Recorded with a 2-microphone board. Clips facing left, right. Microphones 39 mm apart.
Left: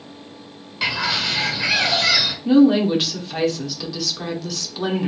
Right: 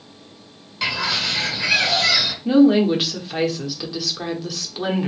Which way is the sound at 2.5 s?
10° right (ahead or behind).